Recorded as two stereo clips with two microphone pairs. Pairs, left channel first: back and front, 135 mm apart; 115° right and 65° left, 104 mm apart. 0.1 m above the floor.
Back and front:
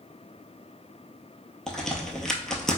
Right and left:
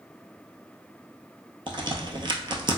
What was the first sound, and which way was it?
A crack, 100° left.